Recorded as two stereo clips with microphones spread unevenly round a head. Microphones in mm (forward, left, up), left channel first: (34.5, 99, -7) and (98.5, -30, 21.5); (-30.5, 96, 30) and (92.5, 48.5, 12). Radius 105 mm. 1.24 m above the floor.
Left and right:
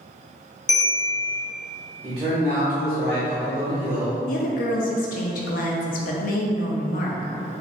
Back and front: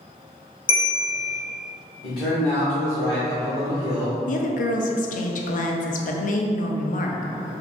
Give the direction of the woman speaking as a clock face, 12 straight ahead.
7 o'clock.